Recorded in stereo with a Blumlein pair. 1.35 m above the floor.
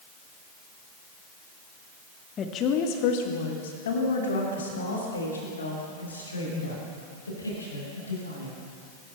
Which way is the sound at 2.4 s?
25° left.